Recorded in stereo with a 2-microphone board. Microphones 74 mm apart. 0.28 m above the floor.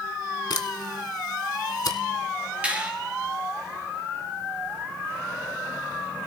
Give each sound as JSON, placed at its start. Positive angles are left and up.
{"t": 0.5, "sound": "a camera shutter", "side_deg": 70, "distance_m": 1.1}
{"t": 2.6, "sound": "a finger snap", "side_deg": -20, "distance_m": 2.5}